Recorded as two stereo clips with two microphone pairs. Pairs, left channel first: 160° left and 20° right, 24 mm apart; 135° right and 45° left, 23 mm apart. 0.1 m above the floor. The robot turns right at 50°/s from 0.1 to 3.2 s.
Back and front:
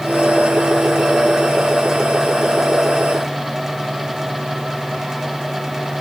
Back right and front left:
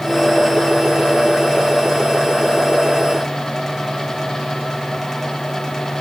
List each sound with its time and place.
Only background noise.